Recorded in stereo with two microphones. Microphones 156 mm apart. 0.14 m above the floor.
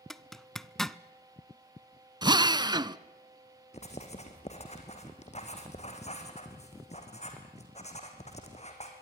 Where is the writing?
45° left (ahead or behind), 3.5 m.